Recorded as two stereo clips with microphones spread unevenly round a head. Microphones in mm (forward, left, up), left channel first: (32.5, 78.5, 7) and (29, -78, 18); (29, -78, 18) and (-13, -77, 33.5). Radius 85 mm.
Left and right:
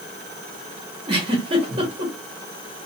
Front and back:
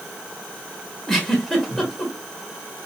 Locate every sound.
1.1 s a giggle: 105° right, 1.0 m